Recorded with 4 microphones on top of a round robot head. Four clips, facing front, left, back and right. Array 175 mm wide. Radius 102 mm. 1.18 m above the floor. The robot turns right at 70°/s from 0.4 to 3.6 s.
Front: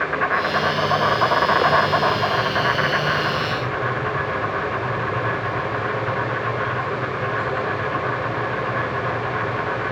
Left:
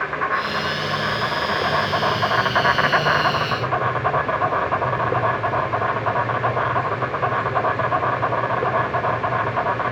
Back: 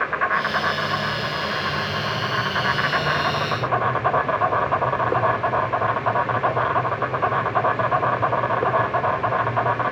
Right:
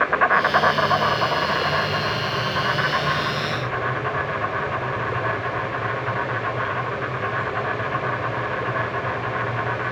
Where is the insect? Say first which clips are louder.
Right 4 dB, front 1 dB; 80° right, 1.3 m; by 9.9 s 145° left, 1.3 m.